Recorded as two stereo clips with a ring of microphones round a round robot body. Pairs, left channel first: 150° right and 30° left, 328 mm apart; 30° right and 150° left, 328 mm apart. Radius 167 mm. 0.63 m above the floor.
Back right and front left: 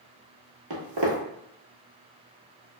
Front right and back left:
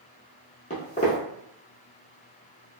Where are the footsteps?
35° left, 1.1 m.